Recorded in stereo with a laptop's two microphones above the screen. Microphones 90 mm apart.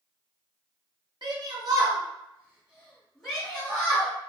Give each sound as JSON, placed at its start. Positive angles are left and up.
{"t": 1.2, "sound": "a shout", "side_deg": -55, "distance_m": 0.9}